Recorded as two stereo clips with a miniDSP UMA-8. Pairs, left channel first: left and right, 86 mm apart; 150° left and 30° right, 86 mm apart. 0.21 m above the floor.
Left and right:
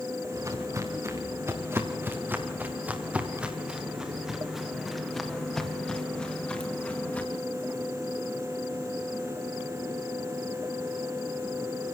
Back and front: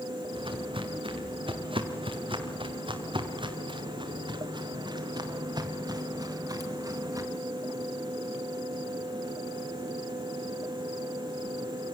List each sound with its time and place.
0.3 s footsteps: 40° right, 4 m; by 7.2 s 20° left, 4.5 m